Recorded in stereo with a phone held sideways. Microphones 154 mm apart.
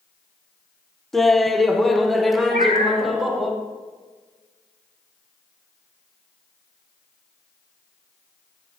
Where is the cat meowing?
65° right (ahead or behind), 2.5 m.